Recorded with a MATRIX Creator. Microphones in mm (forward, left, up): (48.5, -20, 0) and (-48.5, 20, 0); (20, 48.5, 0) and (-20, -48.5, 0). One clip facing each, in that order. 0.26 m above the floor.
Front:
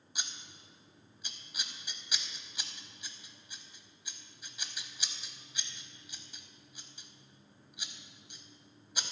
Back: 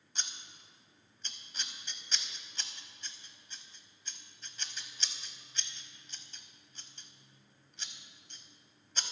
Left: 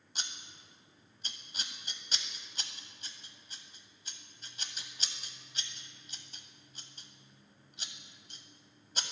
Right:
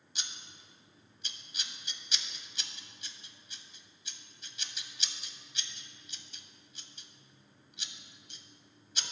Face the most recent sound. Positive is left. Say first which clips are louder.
# front 1 dB, left 2 dB
turn(degrees=50)